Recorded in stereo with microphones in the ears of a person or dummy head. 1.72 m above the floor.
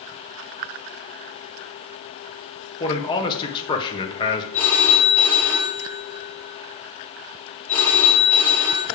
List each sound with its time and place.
2.8 s a man speaking: 25° left (ahead or behind), 1.0 m
4.5 s a phone ringing: 10° left (ahead or behind), 2.5 m